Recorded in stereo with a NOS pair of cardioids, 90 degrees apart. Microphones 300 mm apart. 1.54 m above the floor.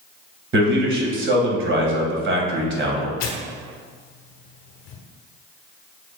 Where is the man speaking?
40° right, 1.6 m.